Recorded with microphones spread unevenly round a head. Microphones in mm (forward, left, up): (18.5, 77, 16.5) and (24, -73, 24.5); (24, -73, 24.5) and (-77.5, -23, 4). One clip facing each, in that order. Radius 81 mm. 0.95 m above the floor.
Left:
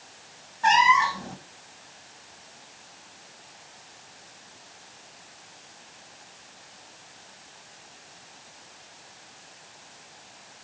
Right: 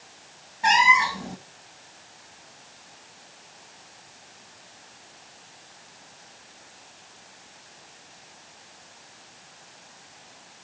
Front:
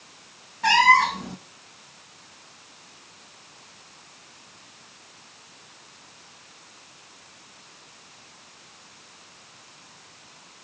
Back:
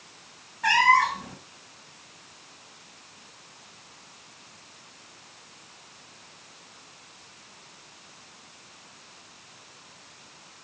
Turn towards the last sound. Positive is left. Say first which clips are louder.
# left 1 dB, front 3 dB
turn(degrees=-25)